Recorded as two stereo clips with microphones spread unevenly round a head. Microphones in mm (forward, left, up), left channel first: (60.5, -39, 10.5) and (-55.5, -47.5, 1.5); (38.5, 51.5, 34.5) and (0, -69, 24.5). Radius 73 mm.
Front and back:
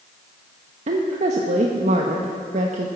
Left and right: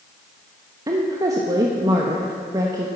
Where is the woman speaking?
170° right, 1.1 m.